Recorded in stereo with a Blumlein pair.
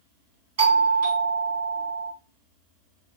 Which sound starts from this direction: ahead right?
A doorbell, at 0.6 s.